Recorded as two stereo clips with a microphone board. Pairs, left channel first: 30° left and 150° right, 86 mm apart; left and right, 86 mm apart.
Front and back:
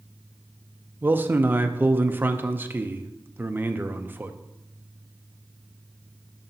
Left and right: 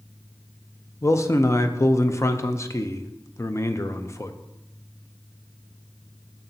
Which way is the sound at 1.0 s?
145° left.